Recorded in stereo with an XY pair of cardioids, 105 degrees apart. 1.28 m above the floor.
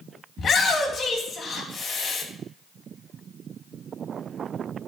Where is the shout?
45° left, 2.5 m.